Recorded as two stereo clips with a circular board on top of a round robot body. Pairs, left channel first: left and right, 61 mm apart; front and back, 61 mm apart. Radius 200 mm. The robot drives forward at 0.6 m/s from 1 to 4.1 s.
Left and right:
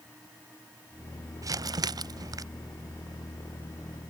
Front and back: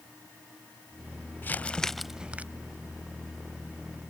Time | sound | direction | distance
1.4 | crumpling | 60° right | ?